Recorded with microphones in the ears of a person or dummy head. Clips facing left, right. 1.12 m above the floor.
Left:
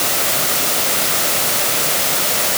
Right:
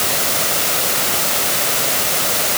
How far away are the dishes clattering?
I don't hear dishes clattering.